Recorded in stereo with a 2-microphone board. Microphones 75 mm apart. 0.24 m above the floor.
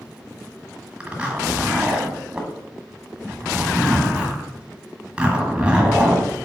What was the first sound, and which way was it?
A zipper, 15° right (ahead or behind).